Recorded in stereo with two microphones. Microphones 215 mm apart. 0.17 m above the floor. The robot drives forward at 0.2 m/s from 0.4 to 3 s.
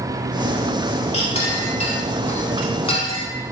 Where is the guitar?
No guitar in this recording.